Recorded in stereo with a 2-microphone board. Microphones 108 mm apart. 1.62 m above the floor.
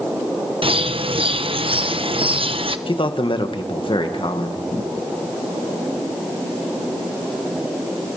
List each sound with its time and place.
0.6 s a bird: 65° right (ahead or behind), 0.9 m
2.9 s a man speaking: 55° left (ahead or behind), 1.9 m